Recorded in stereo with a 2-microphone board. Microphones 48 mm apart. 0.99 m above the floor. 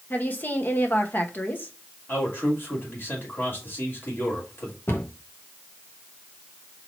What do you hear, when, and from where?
0.1 s a woman speaking: 40° left (ahead or behind), 1.2 m
2.1 s a man speaking: 50° left (ahead or behind), 2.5 m
4.9 s a cupboard door: 60° left (ahead or behind), 1.2 m